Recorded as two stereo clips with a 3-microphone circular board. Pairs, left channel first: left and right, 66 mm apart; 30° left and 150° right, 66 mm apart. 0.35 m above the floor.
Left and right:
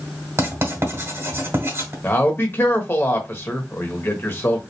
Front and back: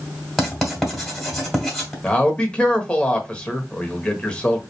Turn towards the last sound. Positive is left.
turn(degrees=90)